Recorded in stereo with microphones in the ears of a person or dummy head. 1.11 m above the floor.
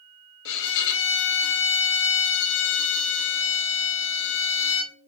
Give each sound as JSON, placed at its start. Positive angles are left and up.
{"t": 0.5, "sound": "a violin", "side_deg": 60, "distance_m": 1.2}